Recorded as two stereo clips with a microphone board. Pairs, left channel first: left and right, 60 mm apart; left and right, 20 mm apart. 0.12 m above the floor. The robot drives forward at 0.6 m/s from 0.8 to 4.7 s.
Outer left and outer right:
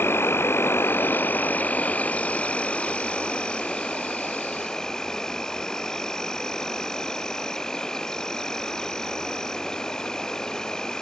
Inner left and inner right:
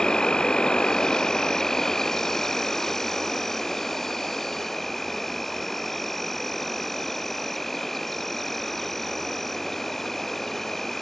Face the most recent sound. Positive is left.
turn(degrees=10)  # may be behind; listen again after turning